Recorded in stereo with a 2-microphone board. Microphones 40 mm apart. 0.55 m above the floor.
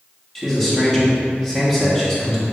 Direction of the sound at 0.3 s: 5° left (ahead or behind).